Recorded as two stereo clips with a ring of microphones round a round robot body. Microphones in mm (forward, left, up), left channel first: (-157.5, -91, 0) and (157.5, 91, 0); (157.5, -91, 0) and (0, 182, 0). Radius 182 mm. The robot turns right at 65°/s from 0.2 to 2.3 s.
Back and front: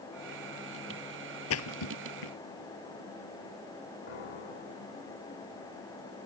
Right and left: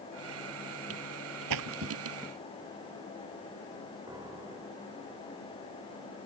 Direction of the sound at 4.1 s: 160° right.